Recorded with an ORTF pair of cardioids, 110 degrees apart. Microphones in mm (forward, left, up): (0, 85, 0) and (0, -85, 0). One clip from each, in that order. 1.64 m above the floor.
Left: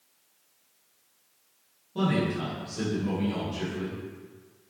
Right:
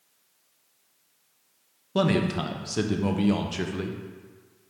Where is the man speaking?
65° right, 0.5 m.